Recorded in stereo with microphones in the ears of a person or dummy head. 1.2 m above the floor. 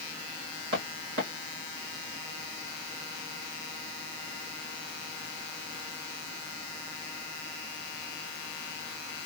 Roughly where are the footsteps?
Right.